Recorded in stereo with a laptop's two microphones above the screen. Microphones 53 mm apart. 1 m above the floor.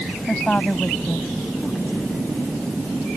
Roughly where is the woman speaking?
Left.